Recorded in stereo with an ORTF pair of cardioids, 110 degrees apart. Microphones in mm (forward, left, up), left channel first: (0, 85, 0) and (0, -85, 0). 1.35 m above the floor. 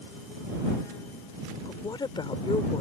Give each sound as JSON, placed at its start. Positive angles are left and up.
{"t": 1.6, "sound": "a woman speaking", "azimuth_deg": 25}